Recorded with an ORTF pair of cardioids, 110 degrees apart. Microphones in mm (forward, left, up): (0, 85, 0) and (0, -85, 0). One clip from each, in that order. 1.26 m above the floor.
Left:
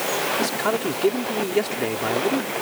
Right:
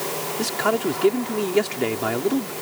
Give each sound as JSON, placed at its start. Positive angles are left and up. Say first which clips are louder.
{"t": 0.4, "sound": "a man speaking", "louder": "even", "azimuth_deg": -15}